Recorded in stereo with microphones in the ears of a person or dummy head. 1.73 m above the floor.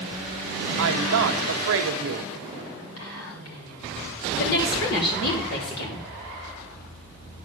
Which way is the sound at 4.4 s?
60° left (ahead or behind).